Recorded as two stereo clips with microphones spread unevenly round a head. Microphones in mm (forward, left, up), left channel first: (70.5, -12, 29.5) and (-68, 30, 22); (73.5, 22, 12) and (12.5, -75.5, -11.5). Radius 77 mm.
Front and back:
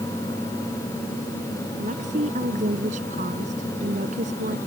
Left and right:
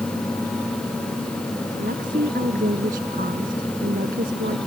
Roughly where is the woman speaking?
Behind right.